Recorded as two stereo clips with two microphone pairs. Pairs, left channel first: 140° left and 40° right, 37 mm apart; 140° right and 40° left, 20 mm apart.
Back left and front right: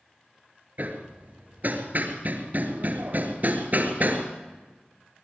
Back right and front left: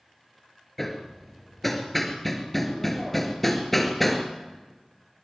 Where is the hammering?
65° right, 2.5 m.